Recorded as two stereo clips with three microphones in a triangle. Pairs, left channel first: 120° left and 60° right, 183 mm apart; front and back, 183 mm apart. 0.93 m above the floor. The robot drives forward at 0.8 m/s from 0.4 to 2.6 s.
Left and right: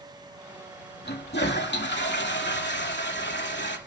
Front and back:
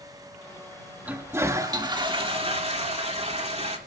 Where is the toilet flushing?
100° left, 2 m; by 3.8 s 125° left, 2.5 m.